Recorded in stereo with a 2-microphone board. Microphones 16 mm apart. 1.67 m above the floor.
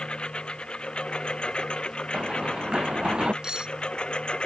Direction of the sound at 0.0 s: 65° left (ahead or behind).